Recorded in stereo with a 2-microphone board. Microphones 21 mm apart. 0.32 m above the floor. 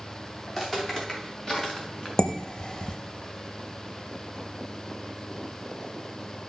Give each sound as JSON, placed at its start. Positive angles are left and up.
{"t": 0.5, "sound": "footsteps", "side_deg": 20, "distance_m": 4.5}
{"t": 2.2, "sound": "dishes clattering", "side_deg": 40, "distance_m": 0.7}